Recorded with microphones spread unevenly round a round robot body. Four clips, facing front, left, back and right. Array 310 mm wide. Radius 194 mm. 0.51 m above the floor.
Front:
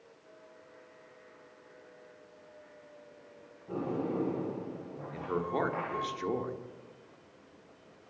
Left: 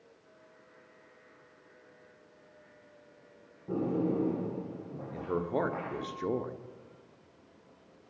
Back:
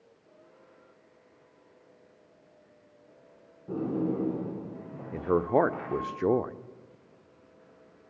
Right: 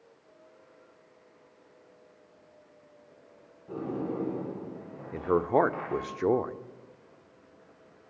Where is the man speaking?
125° right, 1.3 m.